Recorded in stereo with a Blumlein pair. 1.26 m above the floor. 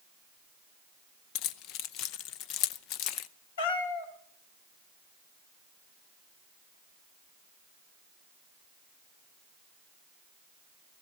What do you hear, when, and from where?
1.4 s keys jangling: 40° left, 0.6 m
3.6 s a cat meowing: 65° left, 2 m